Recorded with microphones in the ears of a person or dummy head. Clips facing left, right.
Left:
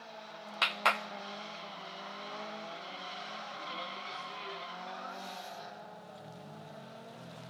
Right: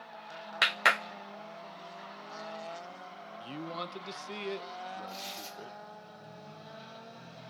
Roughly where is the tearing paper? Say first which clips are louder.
Even; right.